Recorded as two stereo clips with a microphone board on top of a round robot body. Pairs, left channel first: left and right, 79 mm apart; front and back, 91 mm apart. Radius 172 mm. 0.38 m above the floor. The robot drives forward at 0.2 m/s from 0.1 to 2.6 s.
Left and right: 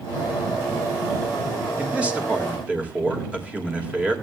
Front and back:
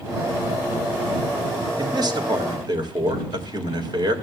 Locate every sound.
1.8 s a man speaking: 160° right, 2.5 m